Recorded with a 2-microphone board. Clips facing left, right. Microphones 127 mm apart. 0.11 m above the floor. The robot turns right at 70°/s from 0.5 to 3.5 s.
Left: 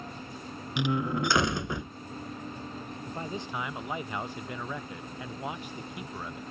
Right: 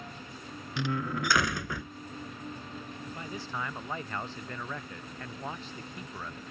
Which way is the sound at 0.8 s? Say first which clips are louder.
Left 4 dB; 15° left (ahead or behind).